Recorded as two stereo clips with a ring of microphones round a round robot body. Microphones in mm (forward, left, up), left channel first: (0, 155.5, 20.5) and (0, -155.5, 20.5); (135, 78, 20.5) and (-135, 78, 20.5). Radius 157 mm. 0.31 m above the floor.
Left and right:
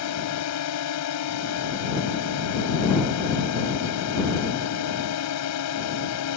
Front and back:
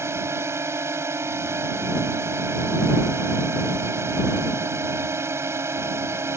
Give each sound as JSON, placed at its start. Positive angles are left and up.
{"t": 0.0, "sound": "a drone", "azimuth_deg": 100}